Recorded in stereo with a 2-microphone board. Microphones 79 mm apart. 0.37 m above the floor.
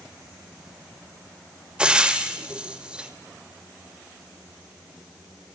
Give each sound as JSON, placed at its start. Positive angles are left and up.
{"t": 1.8, "sound": "frying", "side_deg": -15, "distance_m": 1.7}